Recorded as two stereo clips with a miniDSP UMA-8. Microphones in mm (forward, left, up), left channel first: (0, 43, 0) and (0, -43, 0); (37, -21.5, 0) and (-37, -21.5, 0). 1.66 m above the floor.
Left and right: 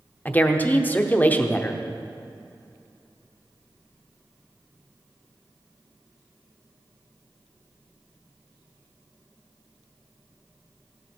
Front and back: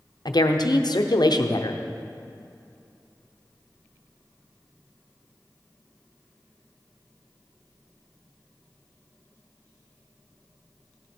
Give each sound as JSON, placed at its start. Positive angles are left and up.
{"t": 0.2, "sound": "a woman speaking", "azimuth_deg": 20, "distance_m": 0.9}